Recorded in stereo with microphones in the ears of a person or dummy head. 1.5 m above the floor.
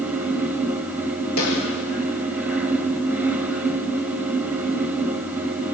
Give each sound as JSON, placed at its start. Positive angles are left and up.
{"t": 0.0, "sound": "a fan", "side_deg": -5, "distance_m": 1.3}
{"t": 1.4, "sound": "a snare drum", "side_deg": 80, "distance_m": 6.5}